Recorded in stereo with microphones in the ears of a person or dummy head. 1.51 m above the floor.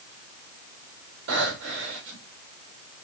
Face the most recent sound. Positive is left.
turn(degrees=-65)  # may be behind; listen again after turning